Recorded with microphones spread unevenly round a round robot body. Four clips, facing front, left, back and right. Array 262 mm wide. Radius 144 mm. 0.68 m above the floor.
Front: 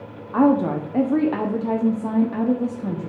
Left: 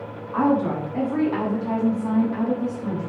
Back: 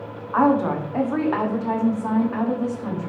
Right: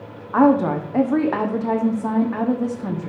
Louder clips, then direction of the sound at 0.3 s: Right 5 dB, front 1 dB; 45° right.